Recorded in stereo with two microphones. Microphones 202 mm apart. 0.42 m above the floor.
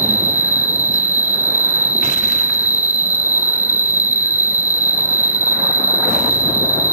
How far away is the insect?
About 2 m.